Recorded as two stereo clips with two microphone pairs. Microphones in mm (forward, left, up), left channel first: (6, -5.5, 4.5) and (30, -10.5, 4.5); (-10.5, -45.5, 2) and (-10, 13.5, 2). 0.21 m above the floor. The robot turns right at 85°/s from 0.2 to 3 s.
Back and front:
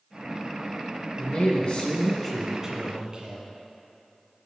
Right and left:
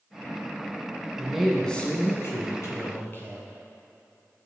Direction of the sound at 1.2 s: 155° left.